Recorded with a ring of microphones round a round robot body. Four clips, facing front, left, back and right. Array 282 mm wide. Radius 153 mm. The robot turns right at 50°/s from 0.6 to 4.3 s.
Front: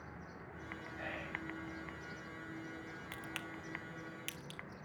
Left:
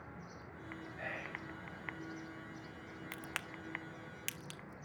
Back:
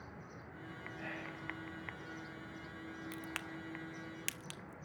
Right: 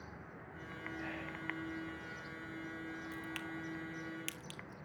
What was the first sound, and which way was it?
Whispering, 50° left.